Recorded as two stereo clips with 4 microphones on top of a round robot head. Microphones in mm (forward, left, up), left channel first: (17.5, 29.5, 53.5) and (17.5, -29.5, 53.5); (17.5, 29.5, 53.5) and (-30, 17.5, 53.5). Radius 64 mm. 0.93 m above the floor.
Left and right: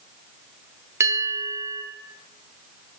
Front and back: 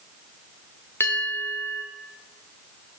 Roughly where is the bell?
Ahead right.